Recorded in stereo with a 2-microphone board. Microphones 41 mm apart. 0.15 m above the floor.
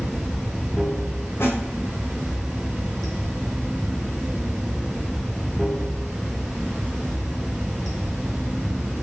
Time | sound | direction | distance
0.0 | running water | 5° left (ahead or behind) | 1.5 m
1.4 | a snare drum | 70° left (ahead or behind) | 4.5 m